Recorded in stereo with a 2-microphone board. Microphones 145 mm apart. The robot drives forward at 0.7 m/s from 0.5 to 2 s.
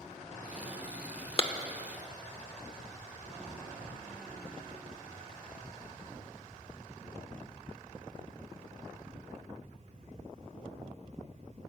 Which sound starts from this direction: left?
A clap, at 1.4 s.